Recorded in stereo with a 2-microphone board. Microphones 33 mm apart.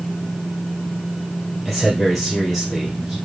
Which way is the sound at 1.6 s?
Centre (ahead or behind).